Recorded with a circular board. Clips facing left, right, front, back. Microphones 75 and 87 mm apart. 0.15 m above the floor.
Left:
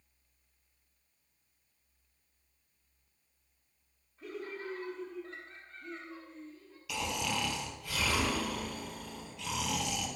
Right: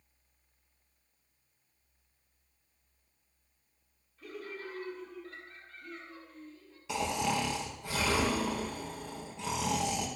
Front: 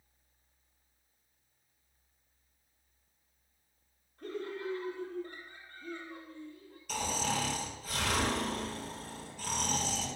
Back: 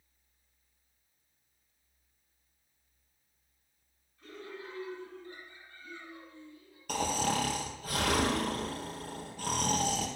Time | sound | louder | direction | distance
4.2 | laughter | left 2 dB, front 7 dB | 25° left | 4 m
6.9 | snoring | right 4 dB, back 3 dB | 150° right | 2.5 m